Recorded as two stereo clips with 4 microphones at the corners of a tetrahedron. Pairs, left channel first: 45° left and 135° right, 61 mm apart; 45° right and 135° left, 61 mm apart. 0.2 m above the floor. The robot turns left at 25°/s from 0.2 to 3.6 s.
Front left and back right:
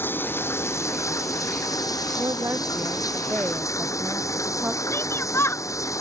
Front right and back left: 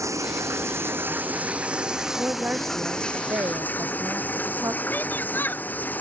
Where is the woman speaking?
165° right; by 4.8 s 160° left.